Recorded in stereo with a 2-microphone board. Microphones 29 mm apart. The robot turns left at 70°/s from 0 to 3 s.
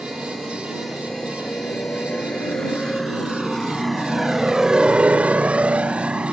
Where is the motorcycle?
45° right (ahead or behind); by 6.3 s 40° right (ahead or behind).